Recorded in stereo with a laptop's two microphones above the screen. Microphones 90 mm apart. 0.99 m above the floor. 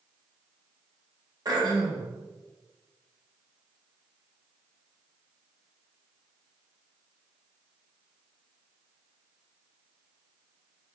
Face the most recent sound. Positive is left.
turn(degrees=-45)  # may be behind; listen again after turning